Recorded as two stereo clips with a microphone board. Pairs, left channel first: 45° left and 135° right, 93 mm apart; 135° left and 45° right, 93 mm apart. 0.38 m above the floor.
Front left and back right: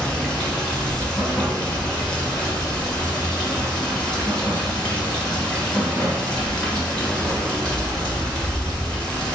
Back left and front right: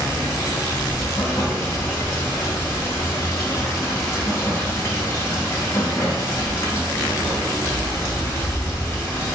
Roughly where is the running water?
Behind left.